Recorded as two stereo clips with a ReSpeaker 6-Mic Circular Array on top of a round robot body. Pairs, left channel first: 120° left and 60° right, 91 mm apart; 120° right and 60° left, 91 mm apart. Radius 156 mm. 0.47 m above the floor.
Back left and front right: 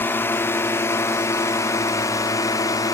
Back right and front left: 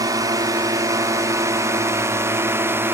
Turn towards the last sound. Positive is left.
turn(degrees=110)